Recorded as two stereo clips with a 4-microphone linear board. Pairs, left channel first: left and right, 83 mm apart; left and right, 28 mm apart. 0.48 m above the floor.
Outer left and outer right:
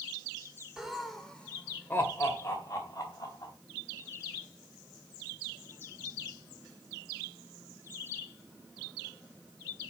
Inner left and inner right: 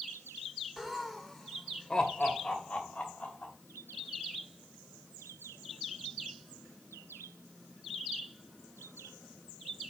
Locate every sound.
0.8 s laughter: 5° right (ahead or behind), 1.8 m; by 3.5 s 45° left (ahead or behind), 3.5 m